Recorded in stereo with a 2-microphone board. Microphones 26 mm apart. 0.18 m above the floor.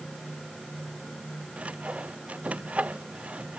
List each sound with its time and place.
1.6 s sawing: 55° right (ahead or behind)